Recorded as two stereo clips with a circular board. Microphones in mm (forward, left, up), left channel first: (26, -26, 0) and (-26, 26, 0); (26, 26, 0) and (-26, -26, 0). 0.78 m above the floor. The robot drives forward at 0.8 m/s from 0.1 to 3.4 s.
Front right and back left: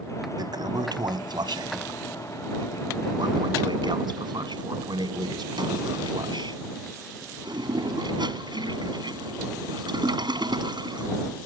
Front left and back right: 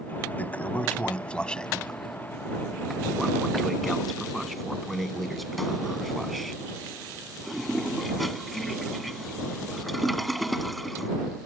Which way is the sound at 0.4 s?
115° left.